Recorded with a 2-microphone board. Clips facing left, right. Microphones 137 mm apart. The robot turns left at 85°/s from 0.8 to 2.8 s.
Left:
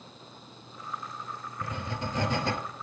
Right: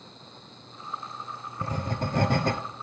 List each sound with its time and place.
1.6 s writing: 40° right, 0.7 m; by 2.6 s 125° right, 0.7 m